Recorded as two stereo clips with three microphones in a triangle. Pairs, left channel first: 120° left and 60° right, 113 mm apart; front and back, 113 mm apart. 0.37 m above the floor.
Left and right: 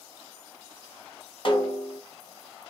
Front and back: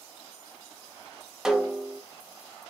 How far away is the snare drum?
About 0.9 m.